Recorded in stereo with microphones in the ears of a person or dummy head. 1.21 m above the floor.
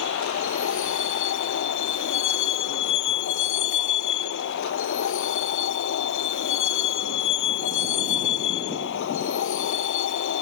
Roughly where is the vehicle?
Left.